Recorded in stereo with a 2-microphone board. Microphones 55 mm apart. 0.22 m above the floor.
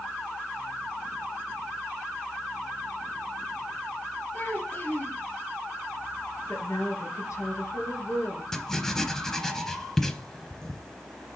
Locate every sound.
4.3 s a child speaking: 40° left (ahead or behind), 3.5 m
6.5 s a woman speaking: 65° left (ahead or behind), 3 m
8.5 s writing: 10° left (ahead or behind), 0.7 m